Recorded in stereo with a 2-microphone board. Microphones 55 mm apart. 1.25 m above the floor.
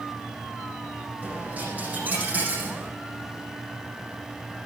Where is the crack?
I don't hear a crack.